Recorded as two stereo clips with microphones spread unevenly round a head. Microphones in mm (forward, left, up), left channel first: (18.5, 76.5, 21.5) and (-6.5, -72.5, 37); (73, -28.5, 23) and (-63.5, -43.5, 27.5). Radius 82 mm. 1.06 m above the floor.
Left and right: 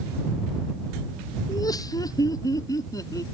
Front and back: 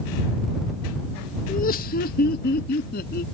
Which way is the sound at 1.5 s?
20° left.